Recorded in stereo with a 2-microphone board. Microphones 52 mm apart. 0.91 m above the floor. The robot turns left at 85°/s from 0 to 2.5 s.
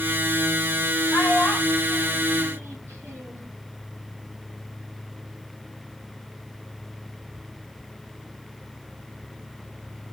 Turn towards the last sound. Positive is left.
turn(degrees=-65)  # may be behind; listen again after turning